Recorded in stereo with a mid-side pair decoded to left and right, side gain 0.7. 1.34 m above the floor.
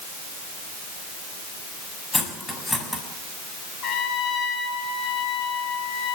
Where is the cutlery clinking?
10° left, 6 m.